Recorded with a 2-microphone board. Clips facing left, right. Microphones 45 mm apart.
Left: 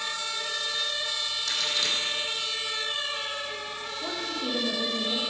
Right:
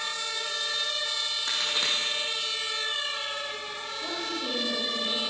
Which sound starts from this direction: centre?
A woman speaking, at 4.0 s.